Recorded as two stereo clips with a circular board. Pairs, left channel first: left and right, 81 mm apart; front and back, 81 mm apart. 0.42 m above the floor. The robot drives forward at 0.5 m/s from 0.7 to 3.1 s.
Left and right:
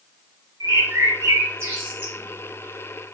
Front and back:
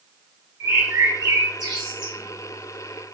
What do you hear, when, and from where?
0.6 s a bird: 125° right, 0.8 m; by 2.1 s 150° right, 1.3 m